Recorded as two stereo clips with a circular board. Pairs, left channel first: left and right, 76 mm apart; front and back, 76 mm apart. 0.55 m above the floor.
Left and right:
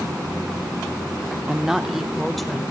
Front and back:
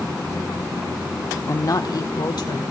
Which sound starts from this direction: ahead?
A woman speaking, at 1.5 s.